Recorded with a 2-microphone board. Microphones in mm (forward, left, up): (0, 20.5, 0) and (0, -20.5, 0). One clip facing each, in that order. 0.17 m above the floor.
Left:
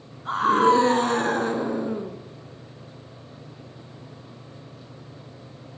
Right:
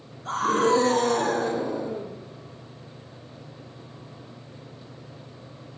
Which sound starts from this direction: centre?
A scream, at 0.2 s.